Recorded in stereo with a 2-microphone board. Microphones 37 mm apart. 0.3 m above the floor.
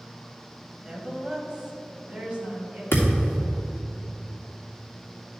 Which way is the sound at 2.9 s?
85° left.